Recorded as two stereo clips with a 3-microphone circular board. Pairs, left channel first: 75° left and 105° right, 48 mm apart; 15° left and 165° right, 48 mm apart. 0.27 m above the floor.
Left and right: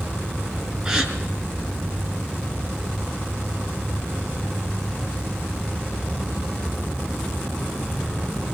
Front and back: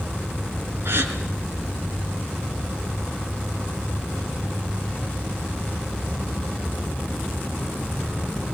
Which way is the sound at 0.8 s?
Straight behind.